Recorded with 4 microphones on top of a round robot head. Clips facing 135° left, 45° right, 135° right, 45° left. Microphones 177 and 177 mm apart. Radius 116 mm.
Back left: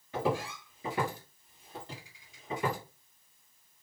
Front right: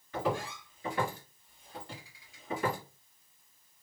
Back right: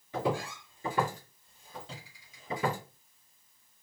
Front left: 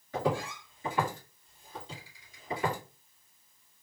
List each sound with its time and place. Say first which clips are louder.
0.1 s footsteps: back left 1 dB, front left 1 dB; 170° left, 1.7 m; by 2.8 s 150° right, 2.5 m